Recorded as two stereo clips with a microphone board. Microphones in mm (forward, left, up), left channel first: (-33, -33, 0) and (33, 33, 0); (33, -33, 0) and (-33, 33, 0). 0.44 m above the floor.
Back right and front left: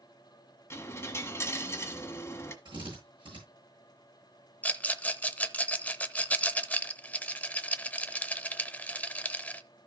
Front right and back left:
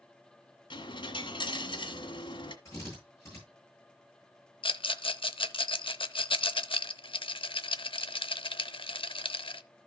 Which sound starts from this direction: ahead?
A drill, at 2.6 s.